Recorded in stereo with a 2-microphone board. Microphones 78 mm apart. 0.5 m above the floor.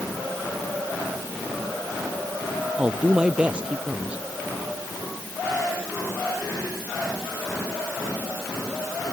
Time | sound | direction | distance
2.8 | a woman speaking | 15° right (ahead or behind) | ?